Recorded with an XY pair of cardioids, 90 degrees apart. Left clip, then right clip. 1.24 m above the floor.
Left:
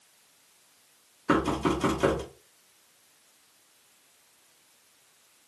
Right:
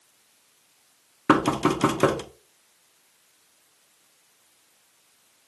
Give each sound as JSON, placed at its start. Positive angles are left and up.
{"t": 1.3, "sound": "knocking", "azimuth_deg": -65, "distance_m": 0.6}